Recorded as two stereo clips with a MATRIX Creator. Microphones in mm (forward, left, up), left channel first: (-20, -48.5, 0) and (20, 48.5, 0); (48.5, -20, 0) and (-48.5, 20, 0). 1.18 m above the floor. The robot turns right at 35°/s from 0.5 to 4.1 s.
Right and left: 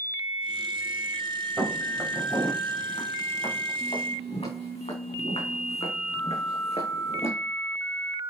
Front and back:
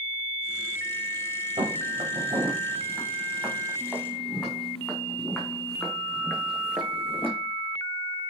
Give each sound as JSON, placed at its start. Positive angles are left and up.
{"t": 1.6, "sound": "footsteps", "azimuth_deg": 155, "distance_m": 6.5}